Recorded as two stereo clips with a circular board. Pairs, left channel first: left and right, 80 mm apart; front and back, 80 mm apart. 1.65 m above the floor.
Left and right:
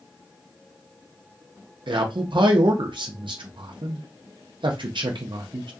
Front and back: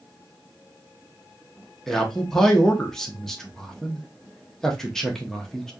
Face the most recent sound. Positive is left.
turn(degrees=-85)